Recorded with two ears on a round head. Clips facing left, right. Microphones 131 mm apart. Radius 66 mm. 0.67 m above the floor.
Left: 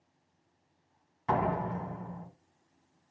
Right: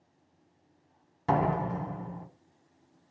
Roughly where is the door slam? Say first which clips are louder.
Right 2 dB; right.